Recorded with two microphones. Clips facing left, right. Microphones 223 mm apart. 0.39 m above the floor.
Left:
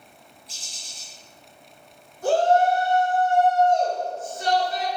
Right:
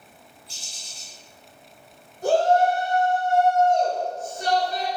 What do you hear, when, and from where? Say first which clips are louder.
0.5 s a bird: even; 85° left, 0.9 m
2.2 s a shout: even; 40° right (ahead or behind), 1.7 m